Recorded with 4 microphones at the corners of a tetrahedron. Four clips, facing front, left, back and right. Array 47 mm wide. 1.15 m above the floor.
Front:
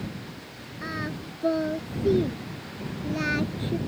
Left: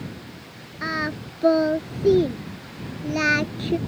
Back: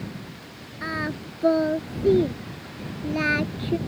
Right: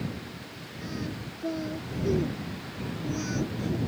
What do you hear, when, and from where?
0.8 s singing: 115° left